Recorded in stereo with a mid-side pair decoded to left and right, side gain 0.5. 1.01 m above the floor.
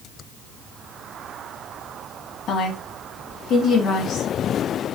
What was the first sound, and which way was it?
A woman speaking, 65° left.